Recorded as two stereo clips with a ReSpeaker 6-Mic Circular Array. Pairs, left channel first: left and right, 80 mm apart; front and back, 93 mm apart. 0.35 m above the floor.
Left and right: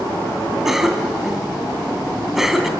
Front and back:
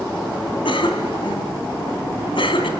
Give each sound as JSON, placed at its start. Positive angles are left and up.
{"t": 0.7, "sound": "a cough", "azimuth_deg": -5, "distance_m": 2.5}